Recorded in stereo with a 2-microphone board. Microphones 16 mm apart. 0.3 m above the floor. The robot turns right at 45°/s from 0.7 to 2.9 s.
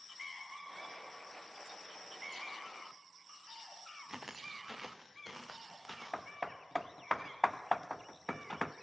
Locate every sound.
4.1 s footsteps: 25° right (ahead or behind), 1.3 m; by 6.3 s 5° right (ahead or behind), 2.5 m
6.1 s hammering: 15° left (ahead or behind), 0.5 m